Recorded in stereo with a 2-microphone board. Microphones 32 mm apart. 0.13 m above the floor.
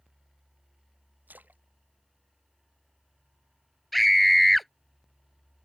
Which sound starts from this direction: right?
A splash, at 1.3 s.